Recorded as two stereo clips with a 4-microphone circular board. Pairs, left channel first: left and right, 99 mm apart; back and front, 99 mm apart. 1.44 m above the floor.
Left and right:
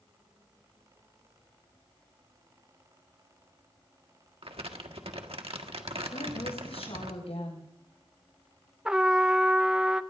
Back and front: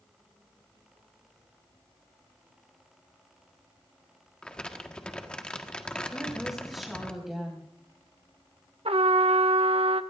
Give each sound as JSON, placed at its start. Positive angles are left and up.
{"t": 4.4, "sound": "crumpling", "azimuth_deg": -100, "distance_m": 1.5}
{"t": 6.1, "sound": "a woman speaking", "azimuth_deg": 90, "distance_m": 6.0}
{"t": 8.8, "sound": "a trumpet", "azimuth_deg": -10, "distance_m": 0.8}